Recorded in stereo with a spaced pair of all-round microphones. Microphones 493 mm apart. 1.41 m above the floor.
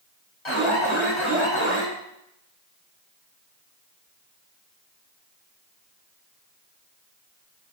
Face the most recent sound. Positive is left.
turn(degrees=75)  # may be behind; listen again after turning